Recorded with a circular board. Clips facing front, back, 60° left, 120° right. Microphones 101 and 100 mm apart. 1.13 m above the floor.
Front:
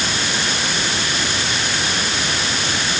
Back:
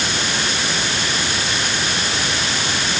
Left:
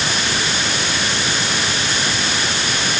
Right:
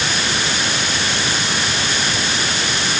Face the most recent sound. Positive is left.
No sound to turn to.